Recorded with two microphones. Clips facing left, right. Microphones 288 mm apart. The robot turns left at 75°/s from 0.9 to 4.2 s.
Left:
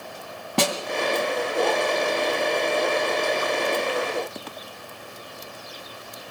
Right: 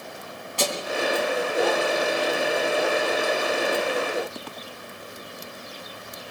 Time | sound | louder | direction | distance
0.6 | a snare drum | left 4 dB | 65° left (ahead or behind) | 2.5 m